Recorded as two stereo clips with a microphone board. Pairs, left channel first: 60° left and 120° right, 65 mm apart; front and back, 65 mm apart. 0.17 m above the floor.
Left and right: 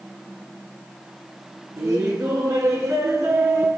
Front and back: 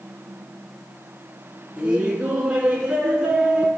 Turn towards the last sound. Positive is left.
turn(degrees=-105)